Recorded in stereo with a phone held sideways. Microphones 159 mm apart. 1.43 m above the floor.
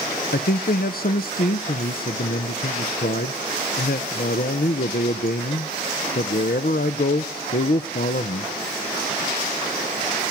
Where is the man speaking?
70° left (ahead or behind), 0.5 m.